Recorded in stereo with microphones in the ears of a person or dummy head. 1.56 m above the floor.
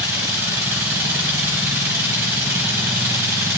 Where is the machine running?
15° right (ahead or behind), 1.8 m.